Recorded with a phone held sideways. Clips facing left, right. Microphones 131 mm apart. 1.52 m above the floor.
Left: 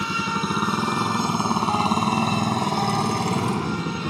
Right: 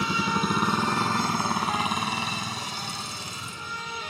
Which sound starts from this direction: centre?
A motorcycle, at 0.0 s.